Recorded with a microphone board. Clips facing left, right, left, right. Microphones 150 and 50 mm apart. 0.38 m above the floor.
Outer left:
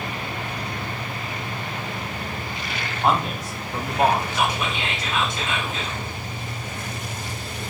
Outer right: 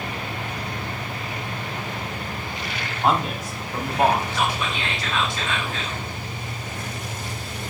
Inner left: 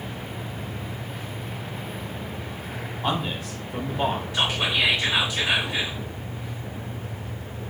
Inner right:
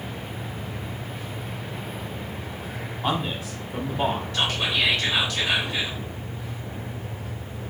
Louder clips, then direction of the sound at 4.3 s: Outer left 1 dB, inner left 1 dB; 20° left (ahead or behind).